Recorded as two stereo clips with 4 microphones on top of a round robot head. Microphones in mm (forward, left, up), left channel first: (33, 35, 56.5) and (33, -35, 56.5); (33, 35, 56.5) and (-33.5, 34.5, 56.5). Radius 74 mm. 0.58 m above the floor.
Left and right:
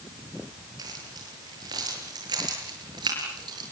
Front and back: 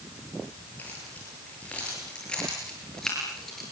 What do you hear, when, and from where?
0.8 s keys jangling: 70° right, 8.5 m; by 3.6 s 90° right, 7.5 m